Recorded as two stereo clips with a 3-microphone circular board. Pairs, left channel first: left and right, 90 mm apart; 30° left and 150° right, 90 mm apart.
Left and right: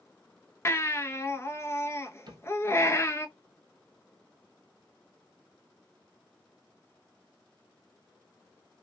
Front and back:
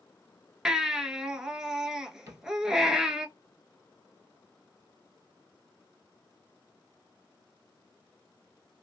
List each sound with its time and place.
0.7 s a baby crying: 130° left, 0.5 m
2.3 s a cupboard door: 100° right, 1.3 m